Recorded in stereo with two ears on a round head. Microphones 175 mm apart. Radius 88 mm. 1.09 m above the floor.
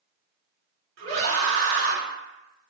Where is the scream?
75° right (ahead or behind), 2 m.